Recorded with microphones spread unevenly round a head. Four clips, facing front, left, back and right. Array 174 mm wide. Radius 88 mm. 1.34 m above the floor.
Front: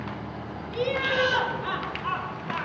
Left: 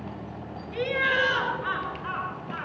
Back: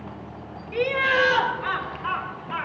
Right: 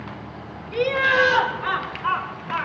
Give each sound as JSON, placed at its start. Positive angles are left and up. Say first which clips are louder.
{"t": 0.7, "sound": "laughter", "louder": "right 6 dB, back 4 dB", "azimuth_deg": -130, "distance_m": 3.5}